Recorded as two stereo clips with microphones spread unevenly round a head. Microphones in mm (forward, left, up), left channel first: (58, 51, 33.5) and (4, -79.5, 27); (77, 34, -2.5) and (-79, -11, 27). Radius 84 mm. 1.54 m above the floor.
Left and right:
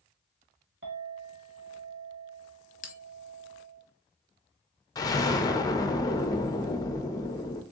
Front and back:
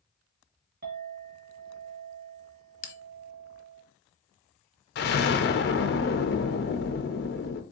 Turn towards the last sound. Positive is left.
turn(degrees=15)